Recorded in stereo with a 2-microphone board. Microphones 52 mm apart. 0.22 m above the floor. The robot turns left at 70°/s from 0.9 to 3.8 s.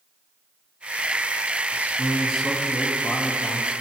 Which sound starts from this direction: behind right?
A man speaking, at 1.7 s.